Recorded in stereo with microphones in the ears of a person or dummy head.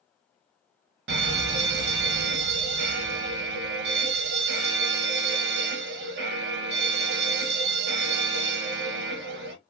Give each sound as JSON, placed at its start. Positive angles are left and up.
{"t": 1.1, "sound": "an alarm", "side_deg": -55, "distance_m": 0.7}